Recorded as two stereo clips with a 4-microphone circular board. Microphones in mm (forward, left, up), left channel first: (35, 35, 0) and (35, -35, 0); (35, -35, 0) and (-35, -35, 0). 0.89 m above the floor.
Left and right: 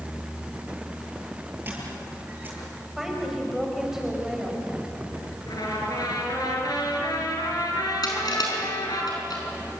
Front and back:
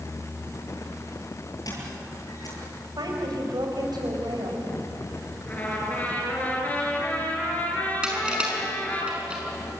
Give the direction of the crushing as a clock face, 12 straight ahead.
8 o'clock.